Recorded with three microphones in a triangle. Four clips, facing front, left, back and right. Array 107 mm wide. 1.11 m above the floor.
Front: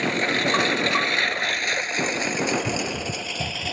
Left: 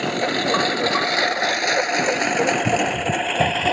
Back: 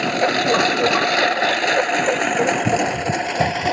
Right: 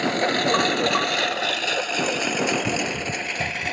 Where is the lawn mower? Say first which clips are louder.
Even, back 5 dB; 175° right; by 3.7 s 140° left.